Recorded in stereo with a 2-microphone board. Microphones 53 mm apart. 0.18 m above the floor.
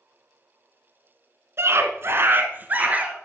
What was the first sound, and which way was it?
A scream, 55° right (ahead or behind).